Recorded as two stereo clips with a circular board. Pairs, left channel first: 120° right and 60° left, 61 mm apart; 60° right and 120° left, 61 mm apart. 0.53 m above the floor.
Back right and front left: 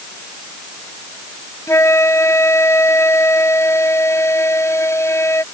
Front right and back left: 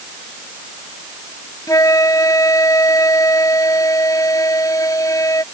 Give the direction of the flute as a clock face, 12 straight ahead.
3 o'clock.